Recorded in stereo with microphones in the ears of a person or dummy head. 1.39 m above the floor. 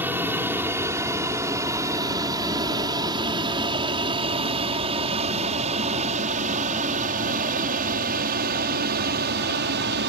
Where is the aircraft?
10° right (ahead or behind); by 10.1 s 55° right (ahead or behind).